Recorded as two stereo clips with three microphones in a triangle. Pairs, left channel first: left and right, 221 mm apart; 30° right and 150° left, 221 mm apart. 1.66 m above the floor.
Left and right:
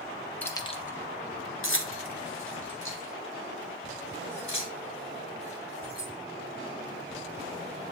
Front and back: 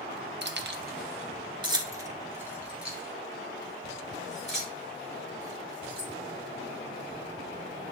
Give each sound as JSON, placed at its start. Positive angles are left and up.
{"t": 0.4, "sound": "keys jangling", "azimuth_deg": 170, "distance_m": 0.8}